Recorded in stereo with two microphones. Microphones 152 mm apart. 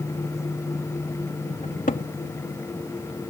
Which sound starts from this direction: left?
A cupboard door, at 1.6 s.